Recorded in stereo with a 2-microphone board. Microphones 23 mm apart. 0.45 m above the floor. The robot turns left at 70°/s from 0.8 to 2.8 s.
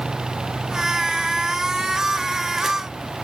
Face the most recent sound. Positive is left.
No sound to turn to.